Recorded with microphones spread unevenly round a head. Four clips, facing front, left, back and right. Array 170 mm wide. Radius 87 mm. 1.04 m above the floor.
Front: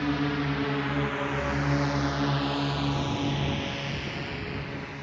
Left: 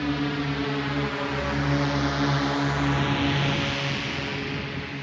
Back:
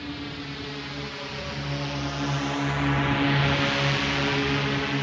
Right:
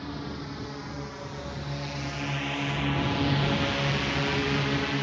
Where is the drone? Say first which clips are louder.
Left 10 dB, front 8 dB; 55° left; by 5.0 s 150° right.